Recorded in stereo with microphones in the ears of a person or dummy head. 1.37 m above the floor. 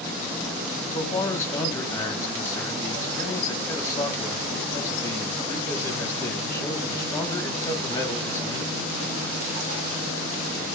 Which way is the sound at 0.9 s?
15° left (ahead or behind).